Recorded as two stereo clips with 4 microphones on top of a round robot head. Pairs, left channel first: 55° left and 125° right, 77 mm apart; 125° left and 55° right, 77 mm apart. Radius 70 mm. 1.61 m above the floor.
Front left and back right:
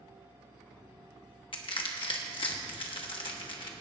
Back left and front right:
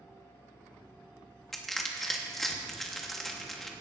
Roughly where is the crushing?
Ahead left.